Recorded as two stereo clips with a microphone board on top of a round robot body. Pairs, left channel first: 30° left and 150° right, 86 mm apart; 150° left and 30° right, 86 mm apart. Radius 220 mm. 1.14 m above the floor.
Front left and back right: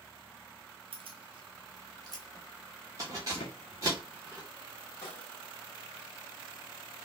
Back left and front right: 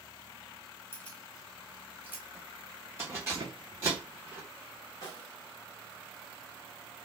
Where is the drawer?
10° left, 0.7 m.